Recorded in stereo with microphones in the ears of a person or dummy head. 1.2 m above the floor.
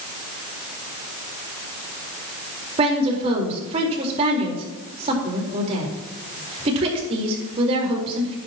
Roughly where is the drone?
I don't hear a drone.